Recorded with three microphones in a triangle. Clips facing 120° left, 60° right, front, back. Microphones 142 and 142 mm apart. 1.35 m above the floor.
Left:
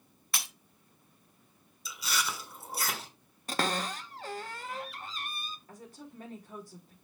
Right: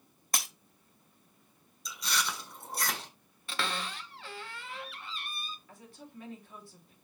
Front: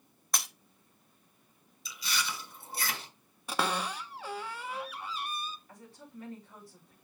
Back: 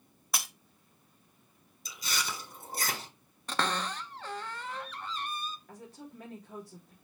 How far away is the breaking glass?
About 1.3 m.